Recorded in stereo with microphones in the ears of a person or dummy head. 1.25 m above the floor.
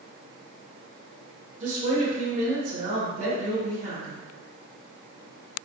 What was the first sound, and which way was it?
A woman speaking, 85° right.